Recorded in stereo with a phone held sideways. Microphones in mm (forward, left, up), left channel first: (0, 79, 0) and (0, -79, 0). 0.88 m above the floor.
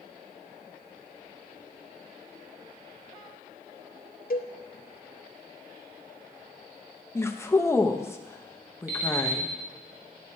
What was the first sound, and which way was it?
A cowbell, 70° left (ahead or behind).